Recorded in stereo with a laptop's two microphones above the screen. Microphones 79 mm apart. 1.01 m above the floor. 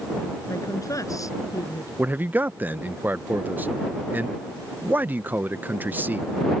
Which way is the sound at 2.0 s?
25° right (ahead or behind).